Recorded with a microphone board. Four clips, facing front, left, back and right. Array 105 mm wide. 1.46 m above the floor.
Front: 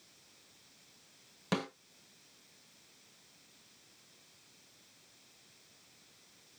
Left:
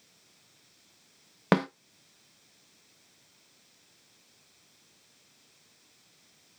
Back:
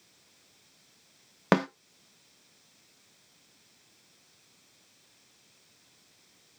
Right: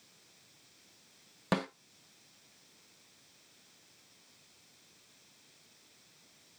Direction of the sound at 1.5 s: 140° left.